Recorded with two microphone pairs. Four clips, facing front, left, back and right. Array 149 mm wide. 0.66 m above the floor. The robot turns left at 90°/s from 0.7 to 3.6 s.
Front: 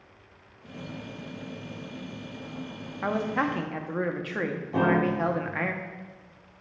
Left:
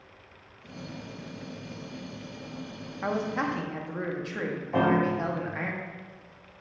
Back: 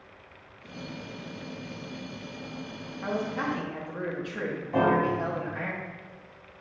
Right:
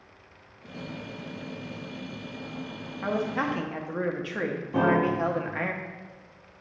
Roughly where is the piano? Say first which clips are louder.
Right 1 dB, even; left.